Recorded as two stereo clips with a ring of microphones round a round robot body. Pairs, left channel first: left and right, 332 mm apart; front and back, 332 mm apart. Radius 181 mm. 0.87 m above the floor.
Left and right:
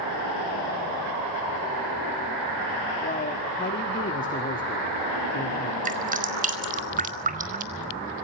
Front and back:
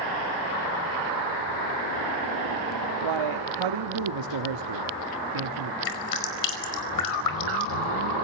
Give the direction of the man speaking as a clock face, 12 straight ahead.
7 o'clock.